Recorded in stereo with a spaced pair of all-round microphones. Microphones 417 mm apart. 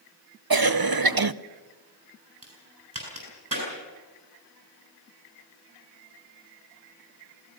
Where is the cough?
55° right (ahead or behind), 0.8 m.